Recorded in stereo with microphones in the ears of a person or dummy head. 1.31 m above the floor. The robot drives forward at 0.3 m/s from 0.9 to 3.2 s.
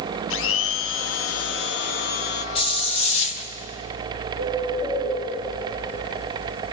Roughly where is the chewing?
No chewing in this recording.